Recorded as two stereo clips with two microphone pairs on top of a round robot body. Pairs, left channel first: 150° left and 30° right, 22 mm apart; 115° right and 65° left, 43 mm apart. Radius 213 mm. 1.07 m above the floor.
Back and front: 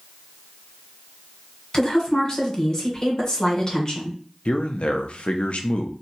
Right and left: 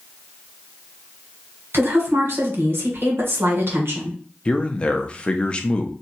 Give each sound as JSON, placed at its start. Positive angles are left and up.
{"t": 1.7, "sound": "a woman speaking", "azimuth_deg": 95, "distance_m": 1.6}
{"t": 4.5, "sound": "a man speaking", "azimuth_deg": 175, "distance_m": 0.6}